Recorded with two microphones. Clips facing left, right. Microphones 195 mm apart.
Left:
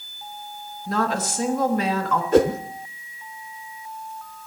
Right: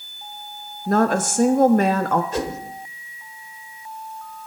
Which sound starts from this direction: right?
A woman speaking, at 0.9 s.